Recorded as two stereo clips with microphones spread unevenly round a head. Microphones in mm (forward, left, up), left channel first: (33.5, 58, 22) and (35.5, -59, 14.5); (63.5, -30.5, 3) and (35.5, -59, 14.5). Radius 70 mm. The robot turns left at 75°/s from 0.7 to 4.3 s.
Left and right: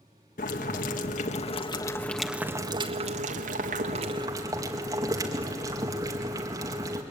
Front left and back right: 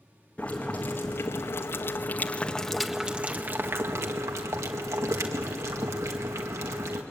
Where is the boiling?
115° left, 1.9 m; by 7.0 s 155° right, 1.9 m.